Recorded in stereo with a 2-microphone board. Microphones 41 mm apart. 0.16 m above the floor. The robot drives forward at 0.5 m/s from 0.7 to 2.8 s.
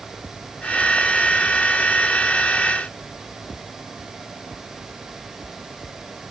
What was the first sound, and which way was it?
Only background noise.